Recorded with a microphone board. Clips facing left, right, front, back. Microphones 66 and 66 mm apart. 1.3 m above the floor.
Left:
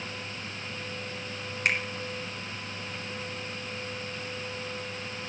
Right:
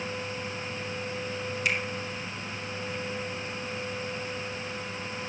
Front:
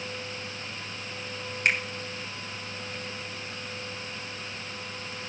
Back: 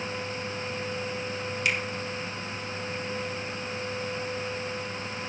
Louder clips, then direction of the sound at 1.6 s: Left 2 dB, front 3 dB; 50° left.